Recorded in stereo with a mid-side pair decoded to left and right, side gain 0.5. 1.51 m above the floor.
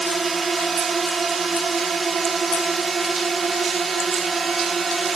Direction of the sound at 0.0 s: 30° right.